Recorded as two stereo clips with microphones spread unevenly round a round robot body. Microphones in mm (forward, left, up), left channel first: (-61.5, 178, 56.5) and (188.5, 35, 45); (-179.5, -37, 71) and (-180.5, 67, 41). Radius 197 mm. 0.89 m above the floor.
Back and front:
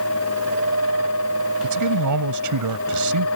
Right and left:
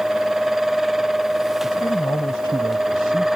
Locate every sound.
1.6 s a man speaking: 15° right